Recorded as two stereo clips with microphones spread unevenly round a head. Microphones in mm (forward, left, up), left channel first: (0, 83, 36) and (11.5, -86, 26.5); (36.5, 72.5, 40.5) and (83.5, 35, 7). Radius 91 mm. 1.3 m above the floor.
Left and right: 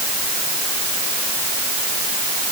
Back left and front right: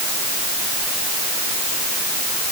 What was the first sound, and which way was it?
Only background noise.